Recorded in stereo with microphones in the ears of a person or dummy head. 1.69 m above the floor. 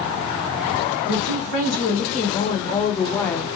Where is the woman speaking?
45° left (ahead or behind), 1.8 m; by 3.5 s centre (ahead or behind), 0.6 m.